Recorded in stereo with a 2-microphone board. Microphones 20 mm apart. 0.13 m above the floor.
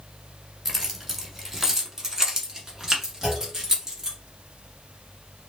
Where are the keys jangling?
Centre (ahead or behind), 1.2 m; by 4.2 s 25° right (ahead or behind), 1.7 m.